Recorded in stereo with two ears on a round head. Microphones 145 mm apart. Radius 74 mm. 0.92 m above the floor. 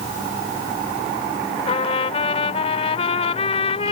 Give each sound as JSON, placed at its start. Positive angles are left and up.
{"t": 1.7, "sound": "a trumpet", "side_deg": 40}